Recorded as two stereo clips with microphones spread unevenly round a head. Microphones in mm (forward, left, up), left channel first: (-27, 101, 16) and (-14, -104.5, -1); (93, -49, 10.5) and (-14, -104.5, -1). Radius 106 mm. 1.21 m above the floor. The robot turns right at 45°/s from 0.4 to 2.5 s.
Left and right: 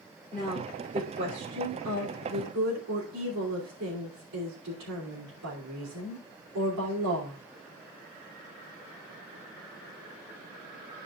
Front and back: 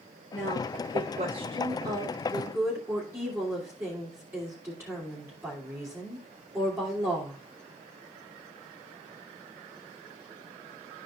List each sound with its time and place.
0.3 s a woman speaking: 175° right, 3 m; by 7.4 s 85° right, 3 m